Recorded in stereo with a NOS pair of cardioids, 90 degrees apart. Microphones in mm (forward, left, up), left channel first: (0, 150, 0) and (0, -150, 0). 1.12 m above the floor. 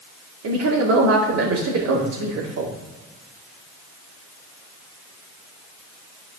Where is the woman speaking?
65° right, 2.5 m.